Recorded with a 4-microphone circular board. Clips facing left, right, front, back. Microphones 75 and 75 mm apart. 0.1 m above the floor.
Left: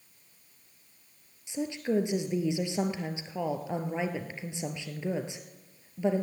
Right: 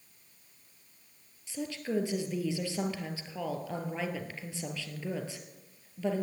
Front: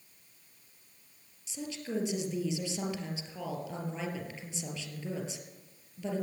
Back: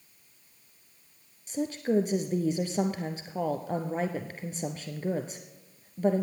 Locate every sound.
1.5 s a woman speaking: 155° left, 1.8 m